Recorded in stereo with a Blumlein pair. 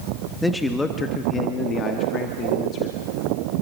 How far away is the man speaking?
About 1.5 m.